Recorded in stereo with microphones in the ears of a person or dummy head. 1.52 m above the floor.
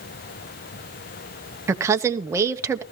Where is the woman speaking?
15° right (ahead or behind), 0.9 m.